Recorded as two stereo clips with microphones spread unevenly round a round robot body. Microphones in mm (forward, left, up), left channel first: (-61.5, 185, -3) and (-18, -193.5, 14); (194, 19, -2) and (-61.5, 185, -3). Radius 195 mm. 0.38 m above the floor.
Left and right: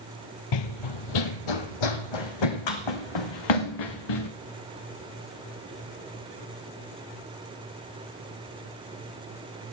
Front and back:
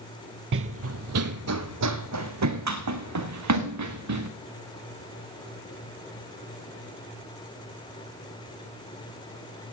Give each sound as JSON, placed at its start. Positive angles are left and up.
{"t": 0.5, "sound": "running footsteps", "azimuth_deg": 105, "distance_m": 0.5}